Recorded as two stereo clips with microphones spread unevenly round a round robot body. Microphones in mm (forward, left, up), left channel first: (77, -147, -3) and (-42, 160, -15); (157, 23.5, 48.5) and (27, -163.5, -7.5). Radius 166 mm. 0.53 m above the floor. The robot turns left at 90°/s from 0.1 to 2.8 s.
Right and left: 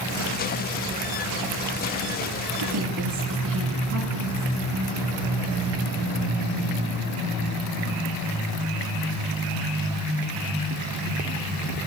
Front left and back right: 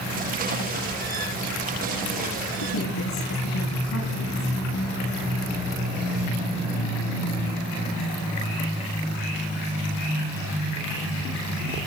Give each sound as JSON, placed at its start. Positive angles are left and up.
{"t": 2.6, "sound": "a woman speaking", "azimuth_deg": 75, "distance_m": 7.0}